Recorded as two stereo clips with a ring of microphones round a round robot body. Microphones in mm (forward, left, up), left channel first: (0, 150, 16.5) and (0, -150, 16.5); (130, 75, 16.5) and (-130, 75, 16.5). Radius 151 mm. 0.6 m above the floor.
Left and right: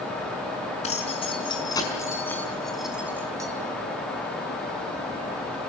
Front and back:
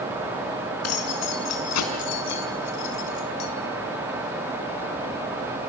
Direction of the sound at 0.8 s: 20° left.